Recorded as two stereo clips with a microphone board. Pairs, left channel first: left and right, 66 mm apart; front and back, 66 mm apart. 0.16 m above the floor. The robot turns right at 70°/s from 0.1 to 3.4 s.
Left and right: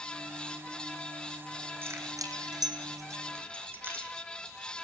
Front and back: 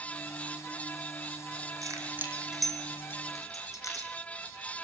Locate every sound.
1.8 s keys jangling: 145° right, 4.5 m; by 4.1 s 35° right, 4.5 m